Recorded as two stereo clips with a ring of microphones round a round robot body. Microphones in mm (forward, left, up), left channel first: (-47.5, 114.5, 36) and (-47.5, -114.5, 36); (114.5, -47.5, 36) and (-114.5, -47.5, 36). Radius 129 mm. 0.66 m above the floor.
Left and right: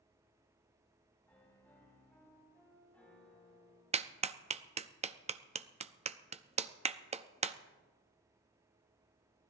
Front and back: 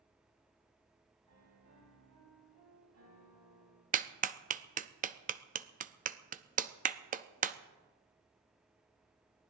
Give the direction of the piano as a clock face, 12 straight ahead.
6 o'clock.